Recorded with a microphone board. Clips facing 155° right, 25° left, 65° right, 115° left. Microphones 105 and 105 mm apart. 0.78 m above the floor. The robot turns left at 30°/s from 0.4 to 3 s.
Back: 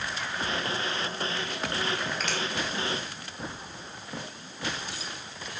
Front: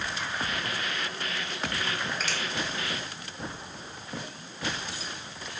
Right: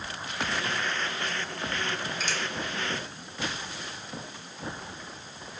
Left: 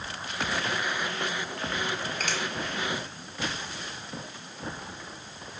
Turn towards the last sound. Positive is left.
turn(degrees=90)